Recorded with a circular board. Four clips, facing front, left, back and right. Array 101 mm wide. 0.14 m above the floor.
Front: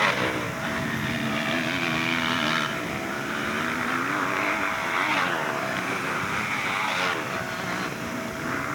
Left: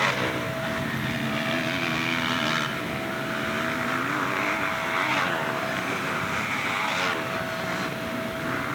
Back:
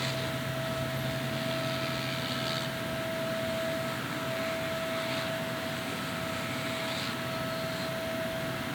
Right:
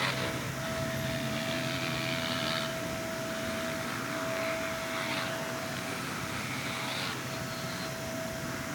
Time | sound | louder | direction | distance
0.0 | a motorcycle | left 8 dB, front 9 dB | 30° left | ?